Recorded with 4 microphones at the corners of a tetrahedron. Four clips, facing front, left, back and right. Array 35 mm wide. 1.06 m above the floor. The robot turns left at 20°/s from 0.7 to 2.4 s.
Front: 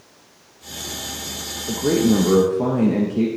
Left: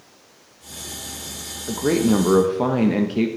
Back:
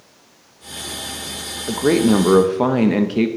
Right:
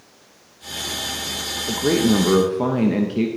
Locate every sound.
1.7 s a man speaking: 170° right, 0.8 m; by 3.3 s 175° left, 0.8 m